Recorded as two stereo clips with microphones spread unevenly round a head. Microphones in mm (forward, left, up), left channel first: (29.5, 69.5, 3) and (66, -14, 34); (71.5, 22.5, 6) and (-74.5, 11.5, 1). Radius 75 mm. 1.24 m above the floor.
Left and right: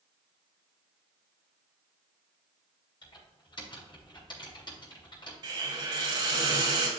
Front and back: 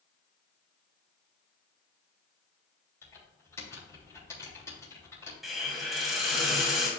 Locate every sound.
3.0 s typing on a keyboard: 75° left, 3.5 m
5.4 s a hiss: 85° right, 1.7 m